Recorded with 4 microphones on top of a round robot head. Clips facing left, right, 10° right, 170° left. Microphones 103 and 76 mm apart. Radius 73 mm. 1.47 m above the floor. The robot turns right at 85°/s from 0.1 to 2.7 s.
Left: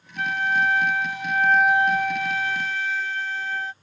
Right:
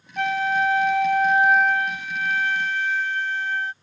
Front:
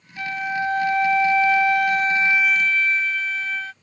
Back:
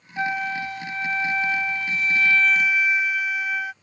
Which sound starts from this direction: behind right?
A flute, at 0.2 s.